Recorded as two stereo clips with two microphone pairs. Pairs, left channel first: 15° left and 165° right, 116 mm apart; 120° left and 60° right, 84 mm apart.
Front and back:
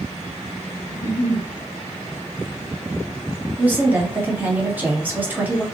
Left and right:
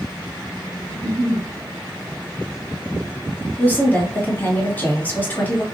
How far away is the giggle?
About 1.3 m.